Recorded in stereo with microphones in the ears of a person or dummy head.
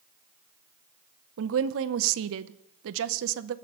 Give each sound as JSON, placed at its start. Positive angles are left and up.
{"t": 1.4, "sound": "a woman speaking", "side_deg": -80, "distance_m": 0.7}